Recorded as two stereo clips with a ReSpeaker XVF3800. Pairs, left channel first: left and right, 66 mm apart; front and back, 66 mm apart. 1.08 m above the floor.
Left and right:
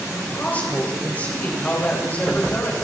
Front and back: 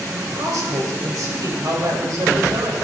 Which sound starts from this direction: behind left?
A woman speaking, at 0.1 s.